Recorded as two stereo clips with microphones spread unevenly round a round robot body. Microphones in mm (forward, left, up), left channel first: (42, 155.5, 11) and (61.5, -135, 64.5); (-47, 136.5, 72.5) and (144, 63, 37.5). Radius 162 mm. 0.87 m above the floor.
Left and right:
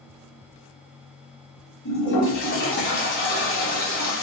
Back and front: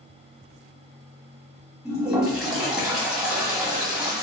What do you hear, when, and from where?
1.9 s a toilet flushing: 60° left, 1.8 m